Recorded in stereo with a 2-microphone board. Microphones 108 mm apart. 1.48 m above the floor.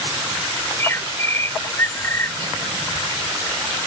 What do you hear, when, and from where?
0.6 s a bird: 25° left (ahead or behind)